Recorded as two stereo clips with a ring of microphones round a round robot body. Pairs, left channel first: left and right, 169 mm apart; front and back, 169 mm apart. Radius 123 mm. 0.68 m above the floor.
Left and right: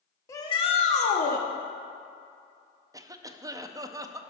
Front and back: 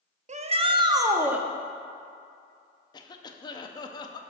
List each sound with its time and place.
0.3 s a shout: 160° left, 1.1 m; by 1.4 s 100° left, 1.3 m
2.9 s a cough: 40° right, 0.6 m